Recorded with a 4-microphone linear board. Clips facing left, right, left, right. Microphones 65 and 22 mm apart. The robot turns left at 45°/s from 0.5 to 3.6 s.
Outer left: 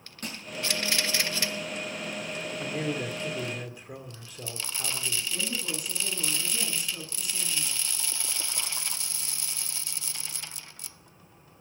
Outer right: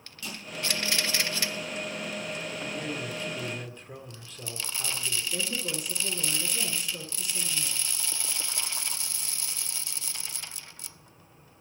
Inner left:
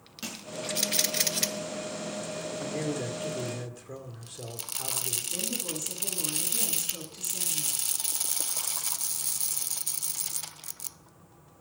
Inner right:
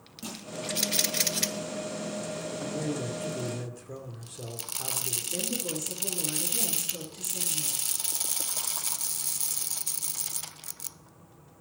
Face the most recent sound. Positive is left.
turn(degrees=15)  # may be behind; listen again after turning